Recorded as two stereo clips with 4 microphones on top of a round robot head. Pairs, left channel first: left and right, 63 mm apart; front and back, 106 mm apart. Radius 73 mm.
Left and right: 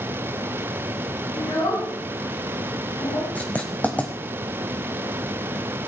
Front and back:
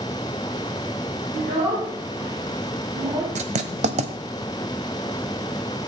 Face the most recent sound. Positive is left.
turn(degrees=165)